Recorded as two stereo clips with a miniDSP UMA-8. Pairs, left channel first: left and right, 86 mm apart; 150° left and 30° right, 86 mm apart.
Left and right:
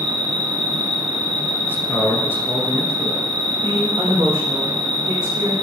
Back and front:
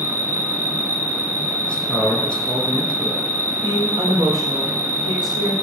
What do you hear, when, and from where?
0.0 s an insect: 150° left, 1.4 m
1.6 s a man speaking: 95° left, 1.2 m
3.6 s a woman speaking: 45° right, 3.5 m